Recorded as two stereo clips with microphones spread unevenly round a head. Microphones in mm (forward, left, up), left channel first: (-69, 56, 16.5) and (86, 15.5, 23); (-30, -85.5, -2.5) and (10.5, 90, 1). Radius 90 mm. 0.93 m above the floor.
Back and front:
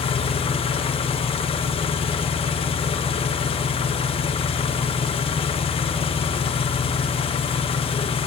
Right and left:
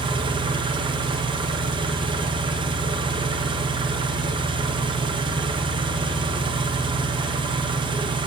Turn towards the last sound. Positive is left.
turn(degrees=130)